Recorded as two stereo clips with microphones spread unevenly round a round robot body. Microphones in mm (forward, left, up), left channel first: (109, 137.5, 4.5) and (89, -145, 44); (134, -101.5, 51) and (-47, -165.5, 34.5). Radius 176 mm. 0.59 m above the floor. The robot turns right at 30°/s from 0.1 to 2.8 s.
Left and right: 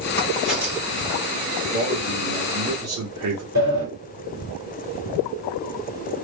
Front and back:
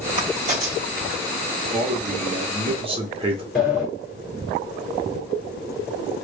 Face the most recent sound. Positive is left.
turn(degrees=-70)